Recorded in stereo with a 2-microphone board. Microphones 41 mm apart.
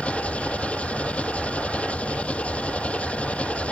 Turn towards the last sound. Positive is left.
turn(degrees=35)  # may be behind; listen again after turning